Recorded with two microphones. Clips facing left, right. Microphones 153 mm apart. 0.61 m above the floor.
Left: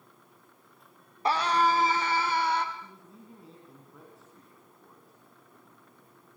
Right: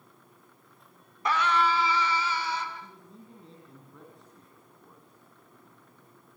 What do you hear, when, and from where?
1.2 s a scream: 30° left (ahead or behind), 1.5 m; by 2.6 s 60° left (ahead or behind), 2.0 m
2.8 s a man speaking: 5° left (ahead or behind), 5 m